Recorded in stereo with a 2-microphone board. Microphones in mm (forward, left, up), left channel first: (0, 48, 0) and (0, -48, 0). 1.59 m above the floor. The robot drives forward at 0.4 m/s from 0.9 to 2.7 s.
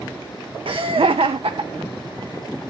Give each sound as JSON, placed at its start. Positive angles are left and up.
{"t": 0.7, "sound": "laughter", "side_deg": -65, "distance_m": 0.6}